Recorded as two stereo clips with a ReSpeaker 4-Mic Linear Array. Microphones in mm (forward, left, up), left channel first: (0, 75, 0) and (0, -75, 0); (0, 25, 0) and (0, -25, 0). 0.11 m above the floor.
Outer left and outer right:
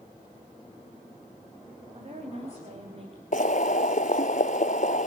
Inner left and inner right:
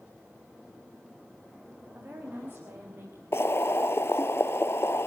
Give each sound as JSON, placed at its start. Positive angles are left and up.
{"t": 1.9, "sound": "a woman speaking", "side_deg": -45, "distance_m": 8.5}
{"t": 3.3, "sound": "boiling", "side_deg": 60, "distance_m": 0.7}